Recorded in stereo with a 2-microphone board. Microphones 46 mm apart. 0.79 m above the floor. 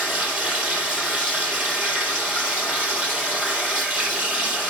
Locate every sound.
0.0 s running water: 35° right (ahead or behind), 3.5 m